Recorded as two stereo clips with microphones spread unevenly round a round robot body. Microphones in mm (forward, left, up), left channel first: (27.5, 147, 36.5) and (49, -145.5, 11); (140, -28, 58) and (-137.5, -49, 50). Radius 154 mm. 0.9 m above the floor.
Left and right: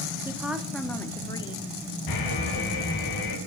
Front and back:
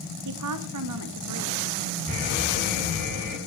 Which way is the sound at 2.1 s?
115° left.